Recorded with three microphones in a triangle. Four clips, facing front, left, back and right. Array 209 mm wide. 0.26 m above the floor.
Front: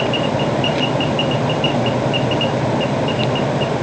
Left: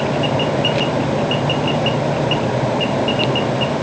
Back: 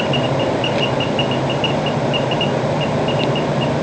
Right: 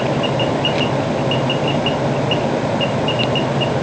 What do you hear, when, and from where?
Only background noise.